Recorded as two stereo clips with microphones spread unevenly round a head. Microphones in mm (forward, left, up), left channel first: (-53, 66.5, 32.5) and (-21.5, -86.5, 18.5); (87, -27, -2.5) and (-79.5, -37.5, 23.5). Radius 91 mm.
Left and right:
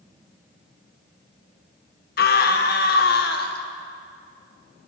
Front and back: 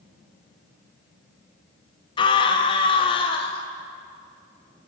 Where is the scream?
65° left, 1.3 m.